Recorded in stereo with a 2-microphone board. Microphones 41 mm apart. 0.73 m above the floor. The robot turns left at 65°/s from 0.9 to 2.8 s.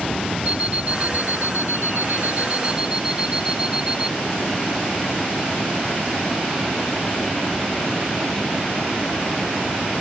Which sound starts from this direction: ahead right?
An alarm clock, at 0.5 s.